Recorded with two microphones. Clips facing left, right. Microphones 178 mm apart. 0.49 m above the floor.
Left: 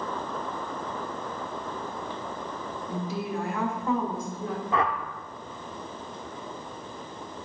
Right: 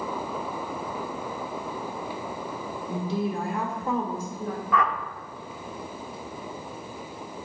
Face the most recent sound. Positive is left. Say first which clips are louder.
# right 1 dB
turn(degrees=30)  # may be behind; listen again after turning